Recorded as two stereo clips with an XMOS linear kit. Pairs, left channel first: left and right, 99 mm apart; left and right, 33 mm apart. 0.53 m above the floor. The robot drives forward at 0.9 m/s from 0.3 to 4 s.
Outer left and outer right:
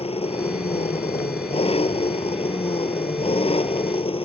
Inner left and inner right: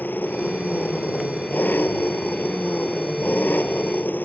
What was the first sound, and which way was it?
An engine running, 85° left.